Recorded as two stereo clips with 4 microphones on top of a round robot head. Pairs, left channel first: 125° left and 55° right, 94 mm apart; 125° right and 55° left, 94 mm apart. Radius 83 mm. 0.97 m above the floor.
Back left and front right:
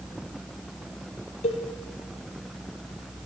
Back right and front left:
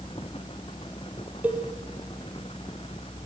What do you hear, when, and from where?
1.4 s a cowbell: 130° left, 4.5 m